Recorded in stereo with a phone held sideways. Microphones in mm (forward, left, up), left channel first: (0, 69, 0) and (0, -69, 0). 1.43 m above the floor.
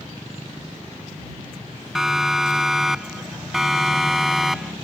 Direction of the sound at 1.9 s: 5° right (ahead or behind).